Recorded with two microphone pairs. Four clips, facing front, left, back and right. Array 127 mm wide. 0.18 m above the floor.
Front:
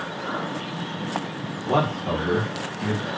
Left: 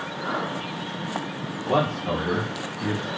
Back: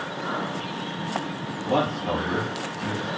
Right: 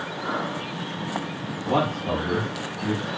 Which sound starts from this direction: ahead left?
A man speaking, at 1.7 s.